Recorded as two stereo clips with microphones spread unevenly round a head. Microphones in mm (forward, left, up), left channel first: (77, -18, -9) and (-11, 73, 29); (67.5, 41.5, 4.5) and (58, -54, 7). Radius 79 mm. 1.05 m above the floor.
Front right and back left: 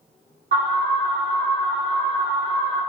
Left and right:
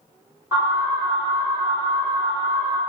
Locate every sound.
0.5 s an alarm: 170° right, 1.7 m